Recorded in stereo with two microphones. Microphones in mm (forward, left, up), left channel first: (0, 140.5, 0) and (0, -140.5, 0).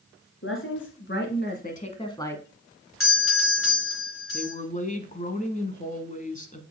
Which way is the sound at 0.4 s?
45° left (ahead or behind).